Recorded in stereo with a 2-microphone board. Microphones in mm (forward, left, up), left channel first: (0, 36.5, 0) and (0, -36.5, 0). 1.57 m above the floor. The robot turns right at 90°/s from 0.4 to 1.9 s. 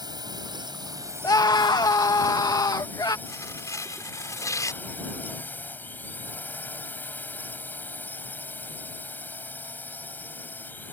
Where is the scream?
55° left; by 3.2 s 115° left.